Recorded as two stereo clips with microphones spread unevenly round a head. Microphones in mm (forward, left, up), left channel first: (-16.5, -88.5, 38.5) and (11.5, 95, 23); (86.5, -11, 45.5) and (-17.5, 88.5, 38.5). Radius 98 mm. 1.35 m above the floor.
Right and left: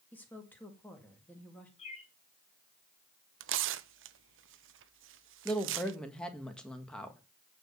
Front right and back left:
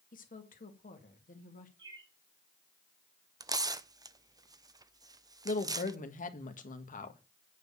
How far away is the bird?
About 1.8 m.